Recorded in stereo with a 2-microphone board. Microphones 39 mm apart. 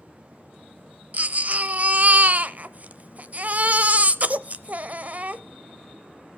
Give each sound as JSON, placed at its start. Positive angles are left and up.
{"t": 1.1, "sound": "a baby crying", "side_deg": -40, "distance_m": 0.6}